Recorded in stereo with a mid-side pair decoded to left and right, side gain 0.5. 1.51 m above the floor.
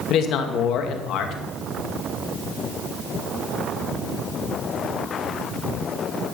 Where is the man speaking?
70° left, 2 m.